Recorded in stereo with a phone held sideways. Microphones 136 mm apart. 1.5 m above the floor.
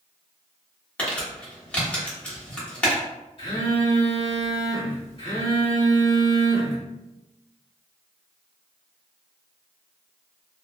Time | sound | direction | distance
1.0 | crumpling | 10° left (ahead or behind) | 1.1 m
3.4 | a phone buzzing | 45° left (ahead or behind) | 1.3 m